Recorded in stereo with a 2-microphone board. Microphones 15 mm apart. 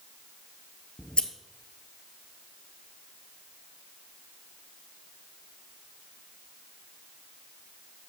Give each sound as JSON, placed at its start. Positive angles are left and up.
{"t": 1.0, "sound": "scissors", "side_deg": 75, "distance_m": 0.6}